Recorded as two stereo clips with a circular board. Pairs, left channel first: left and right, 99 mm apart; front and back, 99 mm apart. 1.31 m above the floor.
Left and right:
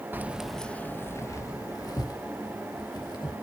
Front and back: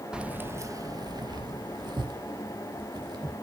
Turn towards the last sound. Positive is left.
turn(degrees=135)